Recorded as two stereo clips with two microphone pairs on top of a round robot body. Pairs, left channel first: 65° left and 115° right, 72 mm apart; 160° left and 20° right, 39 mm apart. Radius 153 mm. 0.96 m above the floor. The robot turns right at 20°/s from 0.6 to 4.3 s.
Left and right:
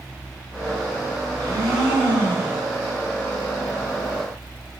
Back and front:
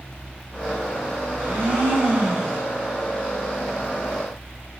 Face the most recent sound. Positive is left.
turn(degrees=-5)